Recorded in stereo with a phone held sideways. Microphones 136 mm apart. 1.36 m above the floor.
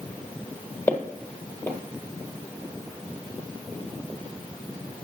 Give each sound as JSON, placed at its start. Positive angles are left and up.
{"t": 0.9, "sound": "footsteps", "side_deg": 15, "distance_m": 1.5}